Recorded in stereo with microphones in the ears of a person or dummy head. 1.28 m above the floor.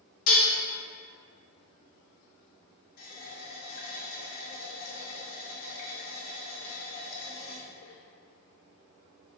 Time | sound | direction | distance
0.3 | dishes clattering | 55° left (ahead or behind) | 1.1 m
3.0 | a running tap | 65° left (ahead or behind) | 1.1 m